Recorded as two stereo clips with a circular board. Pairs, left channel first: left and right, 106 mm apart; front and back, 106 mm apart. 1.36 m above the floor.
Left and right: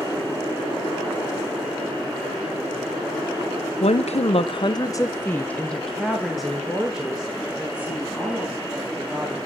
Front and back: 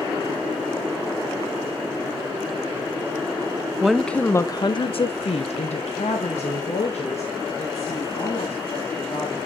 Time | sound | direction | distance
3.8 | a woman speaking | 95° left | 0.8 m